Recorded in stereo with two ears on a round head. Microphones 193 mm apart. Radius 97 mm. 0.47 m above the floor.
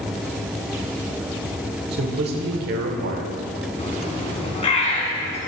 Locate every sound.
1.9 s a man speaking: 50° right (ahead or behind), 1.2 m
3.8 s a bird: 30° left (ahead or behind), 1.5 m